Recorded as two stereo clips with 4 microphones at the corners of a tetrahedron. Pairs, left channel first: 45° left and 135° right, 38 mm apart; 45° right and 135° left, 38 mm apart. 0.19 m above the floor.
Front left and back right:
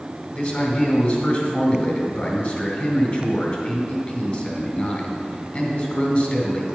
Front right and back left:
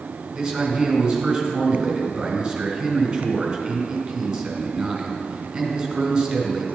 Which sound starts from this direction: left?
A man speaking, at 0.3 s.